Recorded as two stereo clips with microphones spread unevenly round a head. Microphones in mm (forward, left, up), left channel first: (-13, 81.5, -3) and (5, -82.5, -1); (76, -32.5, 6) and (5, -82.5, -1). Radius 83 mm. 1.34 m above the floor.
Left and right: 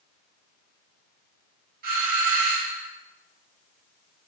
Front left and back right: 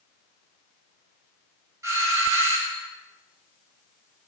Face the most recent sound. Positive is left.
turn(degrees=-100)